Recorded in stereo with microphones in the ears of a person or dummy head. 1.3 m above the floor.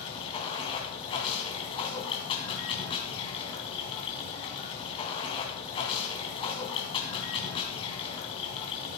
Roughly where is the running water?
Left.